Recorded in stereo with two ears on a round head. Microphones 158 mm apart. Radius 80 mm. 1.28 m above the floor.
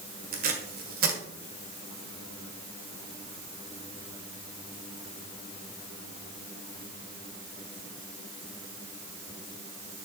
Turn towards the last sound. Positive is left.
turn(degrees=-55)  # may be behind; listen again after turning